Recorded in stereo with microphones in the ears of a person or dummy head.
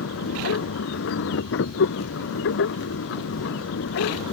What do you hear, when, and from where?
0.0 s a machine running: 80° left